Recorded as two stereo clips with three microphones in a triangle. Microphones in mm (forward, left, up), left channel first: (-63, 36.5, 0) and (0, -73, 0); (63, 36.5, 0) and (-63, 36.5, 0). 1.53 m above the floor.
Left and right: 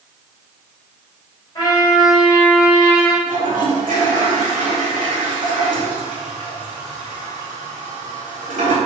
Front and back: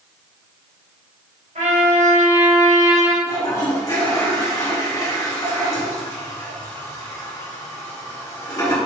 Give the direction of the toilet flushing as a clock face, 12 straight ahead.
2 o'clock.